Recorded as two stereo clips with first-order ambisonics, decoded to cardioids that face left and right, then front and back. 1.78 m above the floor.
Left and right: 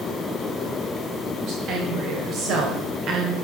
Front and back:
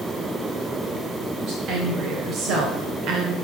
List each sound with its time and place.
1.4 s a woman speaking: 135° right, 2.5 m; by 3.4 s 145° right, 1.0 m